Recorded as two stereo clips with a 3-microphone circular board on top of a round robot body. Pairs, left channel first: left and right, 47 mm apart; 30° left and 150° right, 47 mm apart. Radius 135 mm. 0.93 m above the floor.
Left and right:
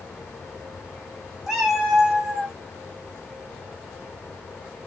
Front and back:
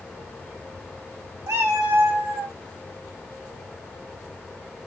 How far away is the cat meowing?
About 1.4 m.